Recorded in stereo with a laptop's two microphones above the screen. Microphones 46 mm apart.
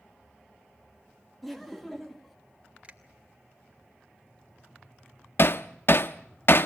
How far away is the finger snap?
About 2.5 m.